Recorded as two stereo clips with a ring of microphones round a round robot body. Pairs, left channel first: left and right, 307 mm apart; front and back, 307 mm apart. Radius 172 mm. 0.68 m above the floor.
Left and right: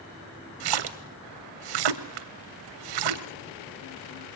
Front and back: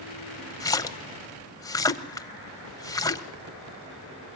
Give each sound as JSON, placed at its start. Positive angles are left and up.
{"t": 0.6, "sound": "a splash", "azimuth_deg": -80, "distance_m": 1.0}